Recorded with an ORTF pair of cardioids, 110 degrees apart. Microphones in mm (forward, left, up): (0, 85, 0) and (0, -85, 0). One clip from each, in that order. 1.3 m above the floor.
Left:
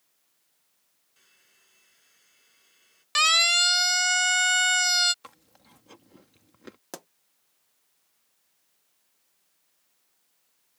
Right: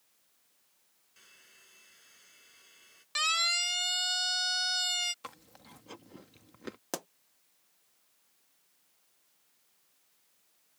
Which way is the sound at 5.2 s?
15° right.